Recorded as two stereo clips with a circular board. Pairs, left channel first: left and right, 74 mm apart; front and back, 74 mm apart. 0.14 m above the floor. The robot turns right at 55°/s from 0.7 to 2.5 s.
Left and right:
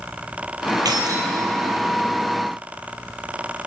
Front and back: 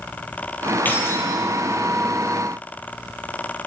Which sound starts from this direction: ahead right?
Keys jangling, at 0.8 s.